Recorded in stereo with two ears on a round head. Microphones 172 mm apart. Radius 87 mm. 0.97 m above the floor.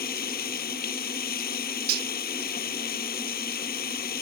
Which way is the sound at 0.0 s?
50° left (ahead or behind).